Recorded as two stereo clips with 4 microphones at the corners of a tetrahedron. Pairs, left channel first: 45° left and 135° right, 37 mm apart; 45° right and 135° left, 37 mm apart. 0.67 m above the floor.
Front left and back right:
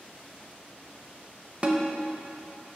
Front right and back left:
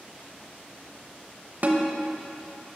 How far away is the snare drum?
About 0.7 m.